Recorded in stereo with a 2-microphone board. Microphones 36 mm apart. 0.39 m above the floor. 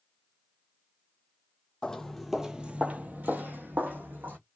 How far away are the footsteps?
About 0.7 m.